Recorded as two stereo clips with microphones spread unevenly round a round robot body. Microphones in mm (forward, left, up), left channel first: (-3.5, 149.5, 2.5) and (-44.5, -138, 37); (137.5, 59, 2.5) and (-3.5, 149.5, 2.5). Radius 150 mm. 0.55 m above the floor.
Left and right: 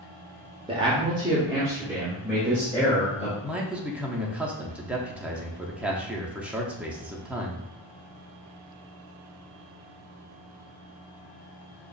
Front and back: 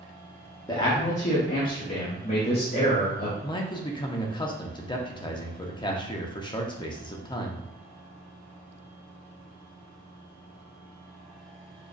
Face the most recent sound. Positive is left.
turn(degrees=-5)